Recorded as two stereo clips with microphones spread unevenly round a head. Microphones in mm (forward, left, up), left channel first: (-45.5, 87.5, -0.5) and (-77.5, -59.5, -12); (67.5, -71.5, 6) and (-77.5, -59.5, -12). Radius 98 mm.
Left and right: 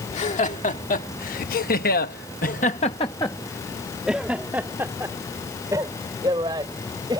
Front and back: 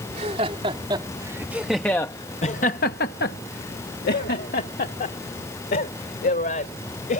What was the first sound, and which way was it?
Laughter, 120° left.